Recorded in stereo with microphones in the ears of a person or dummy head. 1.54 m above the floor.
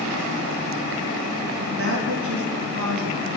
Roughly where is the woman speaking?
Right.